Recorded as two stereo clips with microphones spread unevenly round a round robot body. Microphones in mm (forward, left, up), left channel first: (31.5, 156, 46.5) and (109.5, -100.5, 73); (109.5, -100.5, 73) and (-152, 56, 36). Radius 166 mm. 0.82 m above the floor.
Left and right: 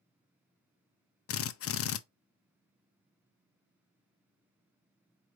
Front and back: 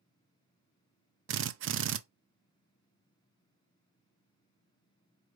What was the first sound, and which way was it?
A drill, 115° left.